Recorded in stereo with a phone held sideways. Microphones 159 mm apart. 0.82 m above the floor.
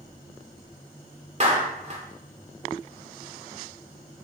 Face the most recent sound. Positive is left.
turn(degrees=-45)  # may be behind; listen again after turning